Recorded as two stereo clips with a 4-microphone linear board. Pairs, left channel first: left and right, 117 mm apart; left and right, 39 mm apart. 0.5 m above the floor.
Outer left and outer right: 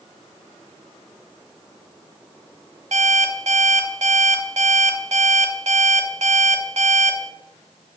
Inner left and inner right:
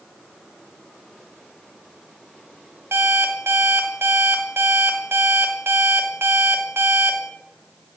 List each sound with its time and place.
2.9 s an alarm clock: 75° right (ahead or behind), 1.3 m